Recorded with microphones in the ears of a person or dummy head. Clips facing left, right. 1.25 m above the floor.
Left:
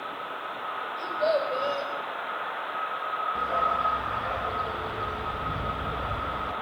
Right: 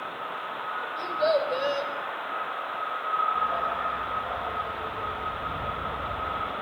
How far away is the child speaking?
About 4.5 m.